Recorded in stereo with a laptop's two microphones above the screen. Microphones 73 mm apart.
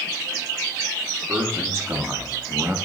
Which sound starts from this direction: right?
A man speaking, at 1.3 s.